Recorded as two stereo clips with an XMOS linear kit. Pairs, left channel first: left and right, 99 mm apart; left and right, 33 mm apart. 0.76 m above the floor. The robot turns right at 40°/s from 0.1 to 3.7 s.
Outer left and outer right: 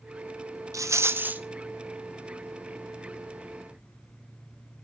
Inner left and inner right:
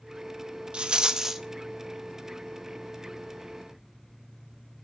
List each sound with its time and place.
0.7 s a rattle: 30° right (ahead or behind), 0.6 m; by 1.4 s 15° right (ahead or behind), 0.6 m